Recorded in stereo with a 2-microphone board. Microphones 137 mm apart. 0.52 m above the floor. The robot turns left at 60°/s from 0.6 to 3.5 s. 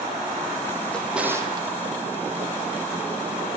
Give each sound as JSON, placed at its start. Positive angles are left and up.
{"t": 0.9, "sound": "a drawer", "side_deg": 10, "distance_m": 4.5}